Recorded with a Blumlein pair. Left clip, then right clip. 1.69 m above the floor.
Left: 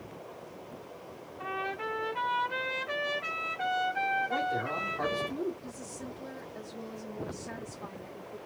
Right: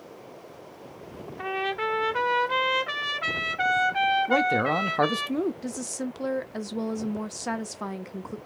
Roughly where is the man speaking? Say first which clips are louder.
Right 8 dB; ahead right.